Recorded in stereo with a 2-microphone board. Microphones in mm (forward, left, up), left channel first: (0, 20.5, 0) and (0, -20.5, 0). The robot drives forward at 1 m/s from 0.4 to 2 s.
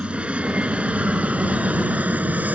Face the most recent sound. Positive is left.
turn(degrees=-40)  # may be behind; listen again after turning